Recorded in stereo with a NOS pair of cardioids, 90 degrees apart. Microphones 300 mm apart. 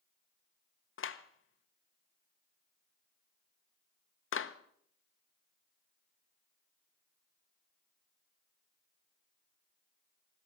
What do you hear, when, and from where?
1.0 s a clap: 45° left, 1.1 m